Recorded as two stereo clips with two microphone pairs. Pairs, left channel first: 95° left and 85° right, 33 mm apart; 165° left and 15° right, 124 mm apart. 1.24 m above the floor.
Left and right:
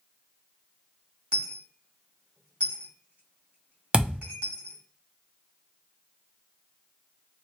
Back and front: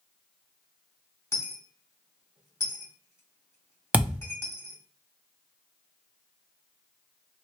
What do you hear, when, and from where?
1.3 s a dropped coin: 130° right, 1.7 m
3.9 s a thud: 85° right, 0.7 m